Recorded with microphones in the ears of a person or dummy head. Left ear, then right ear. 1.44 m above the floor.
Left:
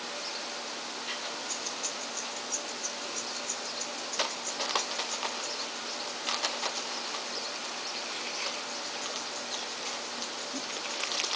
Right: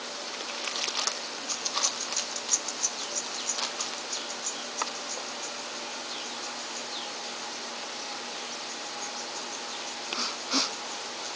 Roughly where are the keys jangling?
Right.